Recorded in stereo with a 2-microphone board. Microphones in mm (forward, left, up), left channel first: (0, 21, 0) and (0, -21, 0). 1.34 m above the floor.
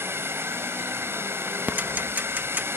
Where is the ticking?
40° right (ahead or behind).